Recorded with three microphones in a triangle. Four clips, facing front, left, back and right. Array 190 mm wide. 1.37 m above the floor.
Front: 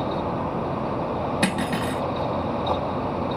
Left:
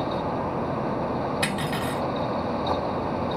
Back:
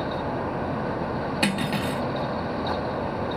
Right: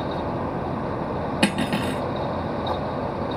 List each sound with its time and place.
1.4 s cutlery clinking: 70° right, 1.3 m